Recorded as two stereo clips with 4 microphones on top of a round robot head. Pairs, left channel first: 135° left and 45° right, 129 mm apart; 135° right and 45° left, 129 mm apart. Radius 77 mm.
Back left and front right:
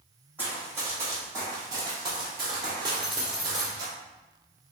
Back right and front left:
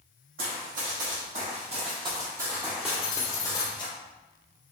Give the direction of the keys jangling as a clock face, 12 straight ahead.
4 o'clock.